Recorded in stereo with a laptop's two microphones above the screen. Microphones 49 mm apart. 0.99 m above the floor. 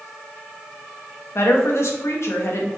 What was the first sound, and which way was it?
A woman speaking, 65° left (ahead or behind).